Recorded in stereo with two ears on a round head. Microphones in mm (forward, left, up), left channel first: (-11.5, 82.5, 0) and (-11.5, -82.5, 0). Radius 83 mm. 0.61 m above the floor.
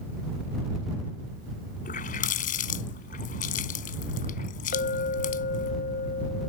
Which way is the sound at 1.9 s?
50° left (ahead or behind).